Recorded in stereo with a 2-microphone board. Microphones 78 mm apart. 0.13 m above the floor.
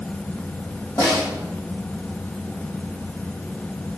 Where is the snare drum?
50° left (ahead or behind), 3 m.